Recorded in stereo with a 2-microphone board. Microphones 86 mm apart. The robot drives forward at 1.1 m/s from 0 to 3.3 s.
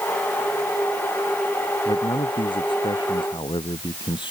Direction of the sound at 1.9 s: 75° left (ahead or behind).